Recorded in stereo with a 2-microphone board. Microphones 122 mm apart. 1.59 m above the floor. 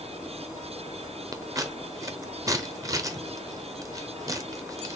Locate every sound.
1.3 s scissors: 25° right (ahead or behind), 0.7 m